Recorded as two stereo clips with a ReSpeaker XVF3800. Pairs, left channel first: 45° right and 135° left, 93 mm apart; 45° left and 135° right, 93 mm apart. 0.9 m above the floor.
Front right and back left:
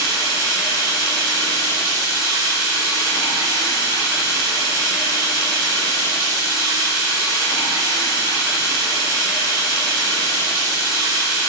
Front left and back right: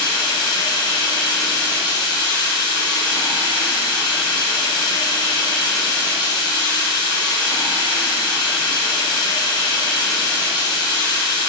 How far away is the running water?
About 2.5 m.